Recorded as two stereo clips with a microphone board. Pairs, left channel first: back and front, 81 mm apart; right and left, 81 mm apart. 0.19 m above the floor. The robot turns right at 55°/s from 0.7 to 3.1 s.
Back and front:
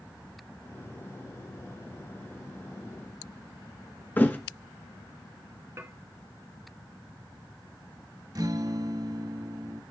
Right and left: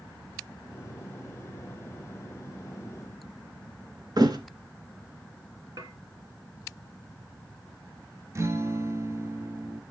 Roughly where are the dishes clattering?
Ahead left.